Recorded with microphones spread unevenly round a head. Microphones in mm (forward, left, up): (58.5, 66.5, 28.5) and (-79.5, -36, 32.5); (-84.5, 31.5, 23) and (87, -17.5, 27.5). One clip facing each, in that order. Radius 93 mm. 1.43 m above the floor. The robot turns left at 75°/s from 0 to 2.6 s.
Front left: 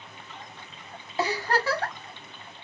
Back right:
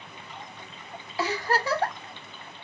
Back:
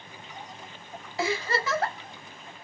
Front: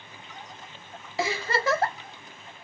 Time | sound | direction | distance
1.2 | a giggle | 30° right | 1.3 m